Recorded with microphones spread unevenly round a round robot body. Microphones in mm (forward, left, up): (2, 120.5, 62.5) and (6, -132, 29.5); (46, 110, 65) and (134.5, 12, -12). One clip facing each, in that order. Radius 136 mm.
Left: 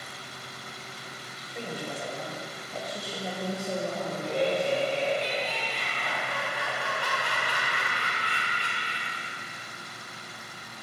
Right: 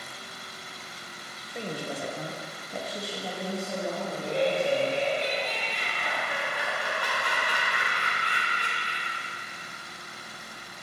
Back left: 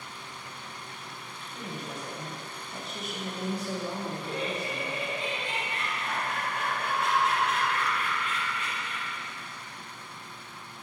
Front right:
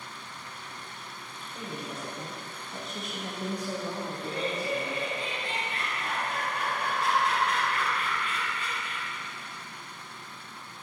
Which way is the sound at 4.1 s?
20° right.